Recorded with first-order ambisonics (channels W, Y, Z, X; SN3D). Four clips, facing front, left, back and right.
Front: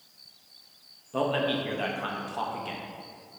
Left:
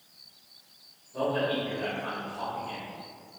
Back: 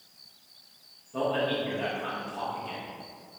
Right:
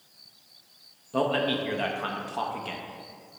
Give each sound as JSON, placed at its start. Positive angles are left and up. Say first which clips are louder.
{"t": 1.1, "sound": "a man speaking", "louder": "right 3 dB, front 1 dB", "azimuth_deg": -65, "distance_m": 0.6}